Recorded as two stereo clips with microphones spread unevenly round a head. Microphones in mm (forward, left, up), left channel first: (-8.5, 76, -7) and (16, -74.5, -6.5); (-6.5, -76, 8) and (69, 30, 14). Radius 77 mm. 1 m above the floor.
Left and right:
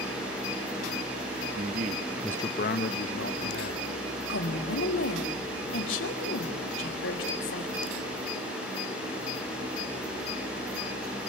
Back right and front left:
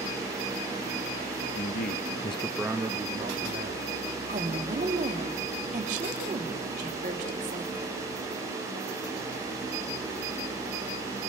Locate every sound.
1.6 s a man speaking: 115° right, 1.2 m; by 3.9 s 105° left, 2.5 m
4.3 s a woman speaking: 110° left, 3.5 m